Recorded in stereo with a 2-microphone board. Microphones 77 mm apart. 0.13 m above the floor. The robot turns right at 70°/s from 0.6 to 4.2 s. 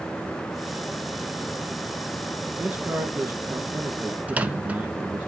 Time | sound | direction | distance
2.6 | a man speaking | 145° right | 1.4 m
4.3 | a microwave | 20° right (ahead or behind) | 0.9 m